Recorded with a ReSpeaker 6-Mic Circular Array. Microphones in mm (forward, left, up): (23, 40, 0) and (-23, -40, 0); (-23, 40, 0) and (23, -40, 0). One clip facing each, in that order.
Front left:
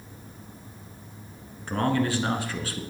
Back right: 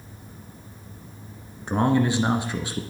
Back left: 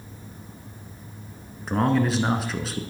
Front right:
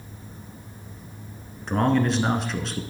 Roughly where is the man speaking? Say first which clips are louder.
Back right 4 dB, even; behind right.